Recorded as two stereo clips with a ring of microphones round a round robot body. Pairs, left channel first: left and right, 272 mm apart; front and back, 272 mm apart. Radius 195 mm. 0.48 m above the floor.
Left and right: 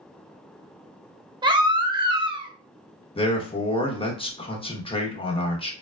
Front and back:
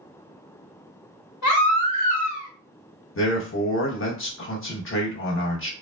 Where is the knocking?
No knocking in this recording.